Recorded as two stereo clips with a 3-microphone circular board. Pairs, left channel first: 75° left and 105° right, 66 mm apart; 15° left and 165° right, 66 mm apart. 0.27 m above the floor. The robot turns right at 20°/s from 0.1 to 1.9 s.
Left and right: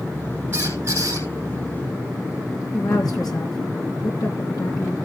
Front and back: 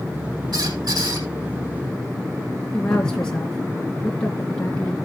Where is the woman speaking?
90° left, 3.5 m.